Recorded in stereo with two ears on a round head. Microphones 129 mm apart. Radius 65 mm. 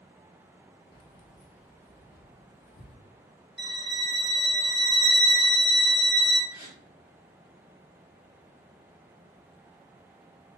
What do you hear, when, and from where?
0.9 s keys jangling: 30° left (ahead or behind), 0.5 m; by 3.0 s 70° left (ahead or behind), 1.6 m
3.6 s a violin: 5° right (ahead or behind), 1.0 m
6.5 s a gasp: 30° left (ahead or behind), 1.0 m